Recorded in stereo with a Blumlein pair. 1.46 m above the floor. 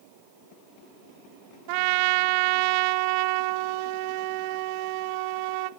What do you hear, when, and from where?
1.7 s a trumpet: 45° right, 0.7 m